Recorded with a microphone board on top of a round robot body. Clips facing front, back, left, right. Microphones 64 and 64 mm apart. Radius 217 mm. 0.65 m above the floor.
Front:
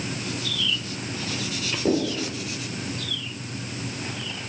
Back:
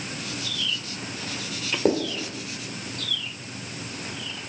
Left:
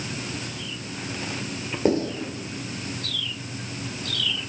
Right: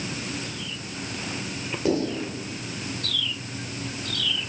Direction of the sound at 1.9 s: 145° left.